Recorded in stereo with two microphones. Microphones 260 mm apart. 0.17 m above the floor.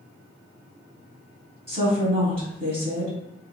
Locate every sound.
1.7 s a woman speaking: 25° right (ahead or behind), 1.7 m